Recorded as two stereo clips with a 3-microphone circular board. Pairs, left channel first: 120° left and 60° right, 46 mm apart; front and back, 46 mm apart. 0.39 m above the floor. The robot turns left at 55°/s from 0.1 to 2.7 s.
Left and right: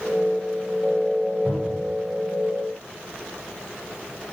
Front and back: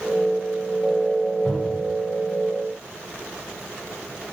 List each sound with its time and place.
1.4 s a cupboard door: 30° left, 2.0 m; by 1.9 s 5° left, 2.0 m